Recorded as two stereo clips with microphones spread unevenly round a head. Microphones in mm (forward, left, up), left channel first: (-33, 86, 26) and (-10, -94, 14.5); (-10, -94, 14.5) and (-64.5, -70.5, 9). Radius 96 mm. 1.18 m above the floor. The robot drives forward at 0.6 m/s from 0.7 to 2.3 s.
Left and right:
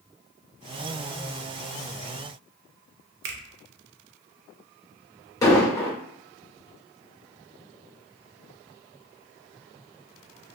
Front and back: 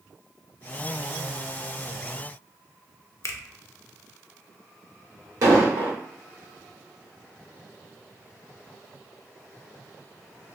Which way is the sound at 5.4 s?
160° left.